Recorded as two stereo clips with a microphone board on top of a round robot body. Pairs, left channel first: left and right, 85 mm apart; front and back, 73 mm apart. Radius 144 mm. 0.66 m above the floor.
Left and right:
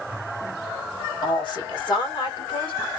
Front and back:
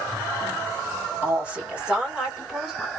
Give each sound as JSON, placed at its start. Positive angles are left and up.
{"t": 1.2, "sound": "a woman speaking", "azimuth_deg": 115, "distance_m": 2.5}